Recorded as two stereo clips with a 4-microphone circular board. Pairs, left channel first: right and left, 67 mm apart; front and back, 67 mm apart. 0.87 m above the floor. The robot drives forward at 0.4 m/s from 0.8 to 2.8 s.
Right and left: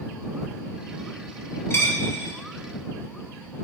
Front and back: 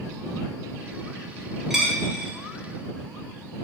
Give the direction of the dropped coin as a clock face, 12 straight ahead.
3 o'clock.